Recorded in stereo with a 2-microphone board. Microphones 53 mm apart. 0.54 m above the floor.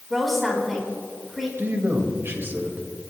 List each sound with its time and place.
0.1 s a woman speaking: centre (ahead or behind), 4 m
1.6 s a man speaking: 45° right (ahead or behind), 2 m